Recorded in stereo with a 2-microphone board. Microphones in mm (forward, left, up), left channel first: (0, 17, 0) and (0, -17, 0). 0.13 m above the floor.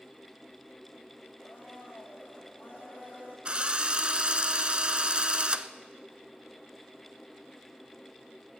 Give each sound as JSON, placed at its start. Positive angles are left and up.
{"t": 1.4, "sound": "a blender", "side_deg": 55, "distance_m": 7.0}
{"t": 3.5, "sound": "a drill", "side_deg": -35, "distance_m": 0.5}